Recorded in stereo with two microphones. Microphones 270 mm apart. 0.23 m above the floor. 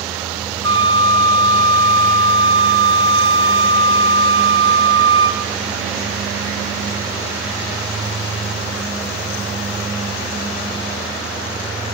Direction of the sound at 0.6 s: 15° left (ahead or behind).